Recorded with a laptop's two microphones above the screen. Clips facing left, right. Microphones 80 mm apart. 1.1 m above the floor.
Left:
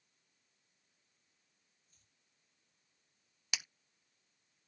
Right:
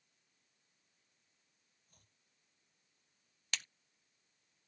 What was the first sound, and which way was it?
Chopping, 55° right (ahead or behind).